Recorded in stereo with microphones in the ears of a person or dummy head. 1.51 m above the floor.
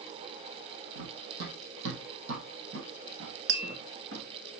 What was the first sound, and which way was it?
Running footsteps, 55° right (ahead or behind).